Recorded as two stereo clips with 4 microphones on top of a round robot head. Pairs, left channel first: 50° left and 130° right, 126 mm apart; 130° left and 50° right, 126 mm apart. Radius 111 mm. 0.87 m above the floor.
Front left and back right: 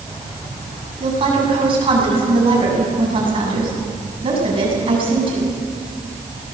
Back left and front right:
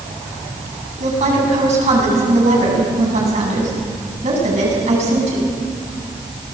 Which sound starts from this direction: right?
A woman speaking, at 1.0 s.